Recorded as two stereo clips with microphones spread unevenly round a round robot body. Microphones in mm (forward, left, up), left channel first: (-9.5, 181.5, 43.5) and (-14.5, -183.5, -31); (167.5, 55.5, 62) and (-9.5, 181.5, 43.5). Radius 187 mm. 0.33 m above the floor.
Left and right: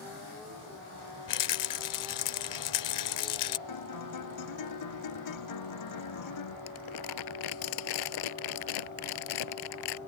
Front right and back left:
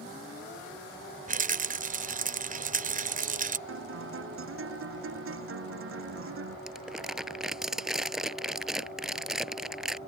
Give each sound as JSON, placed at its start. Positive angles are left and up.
{"t": 1.3, "sound": "a rattle", "azimuth_deg": 120}
{"t": 3.7, "sound": "a guitar", "azimuth_deg": 130}
{"t": 6.7, "sound": "crumpling", "azimuth_deg": 55}